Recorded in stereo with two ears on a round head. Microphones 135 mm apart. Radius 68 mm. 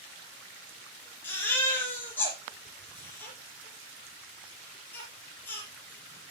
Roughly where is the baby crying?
Centre.